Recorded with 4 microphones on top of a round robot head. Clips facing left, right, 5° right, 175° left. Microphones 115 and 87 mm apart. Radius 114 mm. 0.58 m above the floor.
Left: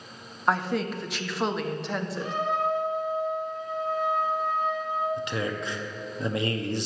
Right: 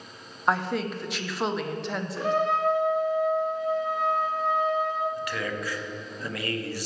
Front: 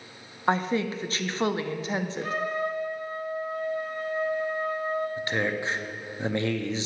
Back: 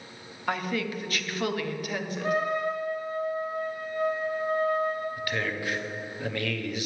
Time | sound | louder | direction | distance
0.5 | a woman speaking | even, front 4 dB | straight ahead | 0.7 m
2.2 | a trumpet | right 5 dB, back 2 dB | 105° right | 1.3 m
5.2 | a man speaking | left 1 dB, front 3 dB | 40° left | 0.9 m